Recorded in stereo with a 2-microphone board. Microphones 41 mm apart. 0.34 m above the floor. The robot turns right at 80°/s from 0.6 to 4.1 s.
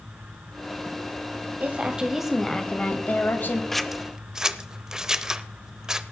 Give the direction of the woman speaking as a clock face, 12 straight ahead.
2 o'clock.